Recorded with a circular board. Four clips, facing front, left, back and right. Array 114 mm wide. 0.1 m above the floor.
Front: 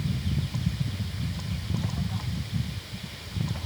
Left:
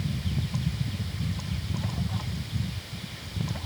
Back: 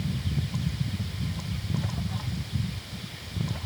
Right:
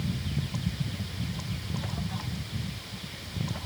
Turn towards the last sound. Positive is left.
No sound to turn to.